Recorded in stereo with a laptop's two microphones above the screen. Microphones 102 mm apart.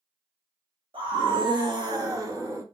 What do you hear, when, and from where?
0.9 s a scream: 55° right (ahead or behind), 1.1 m; by 2.6 s 30° right (ahead or behind), 1.3 m